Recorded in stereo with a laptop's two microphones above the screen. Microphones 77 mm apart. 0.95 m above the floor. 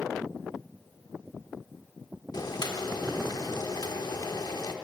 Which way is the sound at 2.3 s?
60° left (ahead or behind).